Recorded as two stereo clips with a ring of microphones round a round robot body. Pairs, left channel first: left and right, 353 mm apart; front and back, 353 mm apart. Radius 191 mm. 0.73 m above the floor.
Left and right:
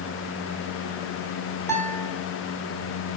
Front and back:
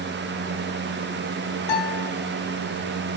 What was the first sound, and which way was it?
A guitar, 5° left.